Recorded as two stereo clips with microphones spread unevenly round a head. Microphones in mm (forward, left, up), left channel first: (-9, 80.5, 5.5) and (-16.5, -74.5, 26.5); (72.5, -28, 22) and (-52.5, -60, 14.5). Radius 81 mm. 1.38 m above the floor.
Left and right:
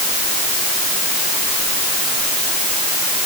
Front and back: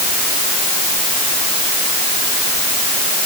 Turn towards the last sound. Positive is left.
No sound to turn to.